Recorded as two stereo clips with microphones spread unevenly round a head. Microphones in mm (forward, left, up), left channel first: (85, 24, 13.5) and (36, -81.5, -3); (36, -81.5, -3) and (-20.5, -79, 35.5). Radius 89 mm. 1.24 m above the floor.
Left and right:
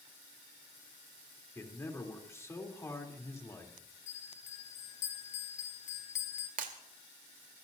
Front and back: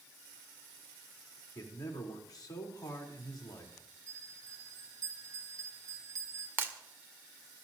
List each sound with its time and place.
1.6 s a man speaking: straight ahead, 3.5 m
4.1 s a bell: 110° left, 1.3 m
6.6 s breaking glass: 150° right, 1.9 m